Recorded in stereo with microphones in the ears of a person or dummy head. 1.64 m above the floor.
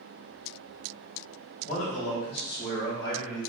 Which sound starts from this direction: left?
A man speaking, at 1.6 s.